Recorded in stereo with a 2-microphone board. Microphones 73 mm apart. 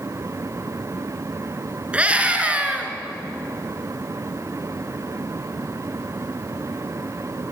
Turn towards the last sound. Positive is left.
turn(degrees=-20)  # may be behind; listen again after turning